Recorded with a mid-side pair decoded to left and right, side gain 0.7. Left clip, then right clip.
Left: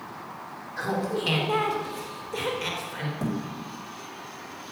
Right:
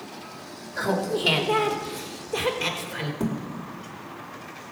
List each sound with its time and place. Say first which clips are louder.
0.8 s laughter: right 3 dB; 55° right, 2.5 m
3.2 s a thud: right 1 dB; 70° right, 2 m